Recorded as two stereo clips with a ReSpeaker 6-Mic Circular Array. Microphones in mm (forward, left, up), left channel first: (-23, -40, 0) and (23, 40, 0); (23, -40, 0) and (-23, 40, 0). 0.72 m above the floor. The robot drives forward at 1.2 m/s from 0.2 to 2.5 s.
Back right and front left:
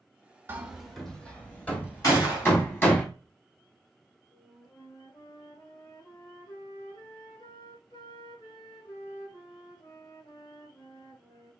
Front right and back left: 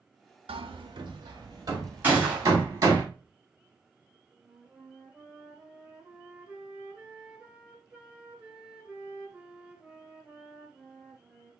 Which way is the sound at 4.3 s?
160° right.